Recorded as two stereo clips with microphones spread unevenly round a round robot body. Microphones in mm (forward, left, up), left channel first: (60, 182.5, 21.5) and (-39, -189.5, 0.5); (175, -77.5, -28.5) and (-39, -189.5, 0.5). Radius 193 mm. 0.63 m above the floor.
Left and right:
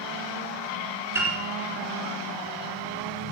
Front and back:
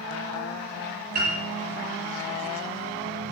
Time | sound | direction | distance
1.1 | a piano | 170° left | 4 m